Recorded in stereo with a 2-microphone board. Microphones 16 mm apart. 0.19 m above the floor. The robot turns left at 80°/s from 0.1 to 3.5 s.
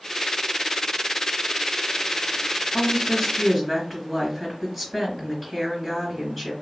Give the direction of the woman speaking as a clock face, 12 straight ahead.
10 o'clock.